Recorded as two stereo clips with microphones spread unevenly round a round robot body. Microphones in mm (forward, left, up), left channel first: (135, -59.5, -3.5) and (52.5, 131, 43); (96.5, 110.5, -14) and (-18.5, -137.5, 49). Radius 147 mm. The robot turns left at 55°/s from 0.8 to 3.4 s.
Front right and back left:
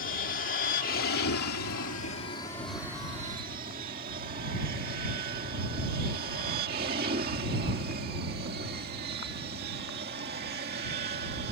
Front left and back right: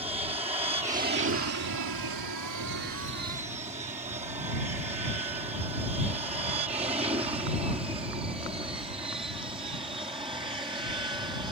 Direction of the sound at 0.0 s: 40° right.